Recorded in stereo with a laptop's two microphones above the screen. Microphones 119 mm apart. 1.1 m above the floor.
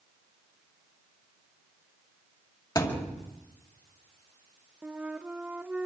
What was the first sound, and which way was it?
A thud, 35° left (ahead or behind).